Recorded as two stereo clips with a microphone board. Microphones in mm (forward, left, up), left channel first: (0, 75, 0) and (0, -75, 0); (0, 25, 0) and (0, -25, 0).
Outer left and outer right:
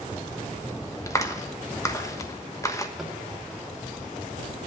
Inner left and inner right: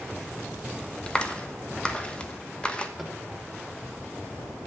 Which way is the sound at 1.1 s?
20° left (ahead or behind).